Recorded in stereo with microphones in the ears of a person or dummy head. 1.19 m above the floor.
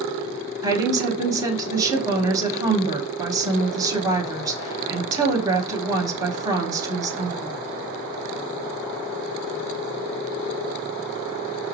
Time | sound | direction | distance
0.6 | a woman speaking | 20° right (ahead or behind) | 1.0 m